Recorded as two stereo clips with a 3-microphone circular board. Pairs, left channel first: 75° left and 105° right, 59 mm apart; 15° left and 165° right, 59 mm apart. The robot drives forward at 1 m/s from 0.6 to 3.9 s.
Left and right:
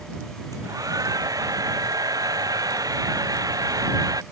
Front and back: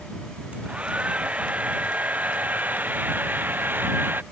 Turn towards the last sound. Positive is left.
turn(degrees=-110)